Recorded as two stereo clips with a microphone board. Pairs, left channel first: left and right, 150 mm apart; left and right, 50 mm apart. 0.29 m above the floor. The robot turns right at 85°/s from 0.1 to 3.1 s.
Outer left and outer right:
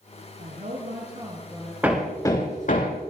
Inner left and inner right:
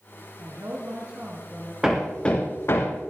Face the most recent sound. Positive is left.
turn(degrees=85)